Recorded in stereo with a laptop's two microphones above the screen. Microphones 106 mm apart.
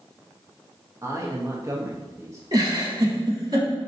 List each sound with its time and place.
1.0 s a man speaking: 30° right (ahead or behind), 0.7 m
2.5 s a giggle: 45° right (ahead or behind), 1.0 m